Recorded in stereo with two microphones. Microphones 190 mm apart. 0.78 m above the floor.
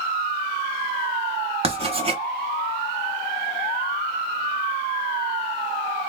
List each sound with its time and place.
1.6 s writing: 30° right (ahead or behind), 0.8 m